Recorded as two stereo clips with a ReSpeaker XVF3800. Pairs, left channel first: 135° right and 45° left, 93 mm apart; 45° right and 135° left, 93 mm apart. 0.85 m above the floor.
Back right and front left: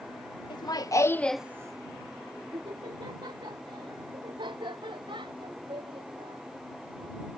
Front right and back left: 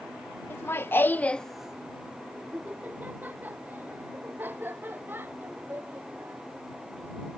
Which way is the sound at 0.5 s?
105° right.